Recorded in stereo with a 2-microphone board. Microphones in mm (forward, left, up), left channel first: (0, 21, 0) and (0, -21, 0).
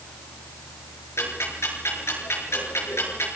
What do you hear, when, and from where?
1.2 s ticking: 80° left, 5.5 m